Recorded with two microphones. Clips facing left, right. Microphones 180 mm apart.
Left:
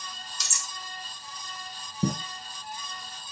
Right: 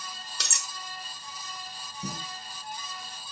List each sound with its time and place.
0.4 s cutlery clinking: 65° right (ahead or behind), 1.2 m
2.0 s footsteps: 55° left (ahead or behind), 1.2 m